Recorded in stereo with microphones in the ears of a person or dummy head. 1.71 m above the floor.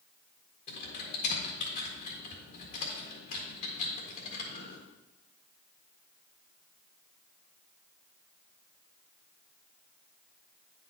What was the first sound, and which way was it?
Typing on a keyboard, 40° left (ahead or behind).